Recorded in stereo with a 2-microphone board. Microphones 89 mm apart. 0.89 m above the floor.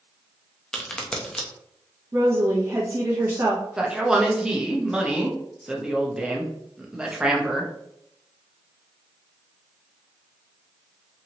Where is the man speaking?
10° right (ahead or behind), 0.7 m.